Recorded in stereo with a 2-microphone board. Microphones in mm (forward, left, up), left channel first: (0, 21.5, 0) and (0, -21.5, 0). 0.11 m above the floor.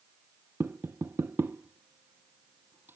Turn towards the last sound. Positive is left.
turn(degrees=-60)  # may be behind; listen again after turning